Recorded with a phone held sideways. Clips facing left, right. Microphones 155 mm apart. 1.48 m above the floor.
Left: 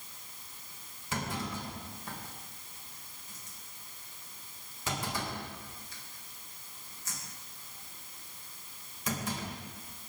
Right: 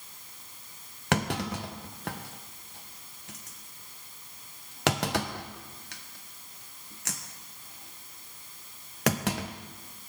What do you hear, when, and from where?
1.1 s a clunk: 80° right, 1.2 m